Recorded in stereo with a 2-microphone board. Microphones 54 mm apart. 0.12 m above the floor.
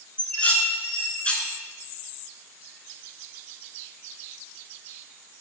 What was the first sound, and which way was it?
Dishes clattering, 20° left (ahead or behind).